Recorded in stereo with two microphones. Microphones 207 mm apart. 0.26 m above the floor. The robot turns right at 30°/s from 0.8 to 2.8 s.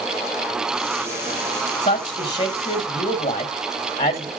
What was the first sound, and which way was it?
A man speaking, 35° left (ahead or behind).